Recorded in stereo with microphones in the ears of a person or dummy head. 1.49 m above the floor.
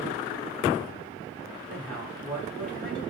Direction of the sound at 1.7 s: 5° left (ahead or behind).